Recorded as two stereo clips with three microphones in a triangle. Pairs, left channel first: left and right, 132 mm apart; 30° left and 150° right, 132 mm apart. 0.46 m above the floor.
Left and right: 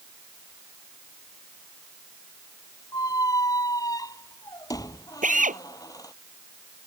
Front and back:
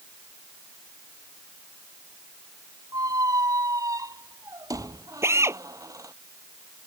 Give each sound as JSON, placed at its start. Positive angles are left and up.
{"t": 2.9, "sound": "a squeak", "azimuth_deg": 150}
{"t": 5.2, "sound": "a drill", "azimuth_deg": -80}